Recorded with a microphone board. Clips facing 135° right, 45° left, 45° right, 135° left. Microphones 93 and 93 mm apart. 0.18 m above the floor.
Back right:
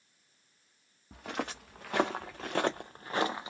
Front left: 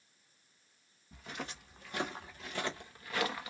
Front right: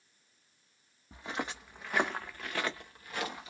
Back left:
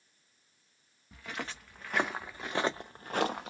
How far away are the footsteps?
About 1.0 m.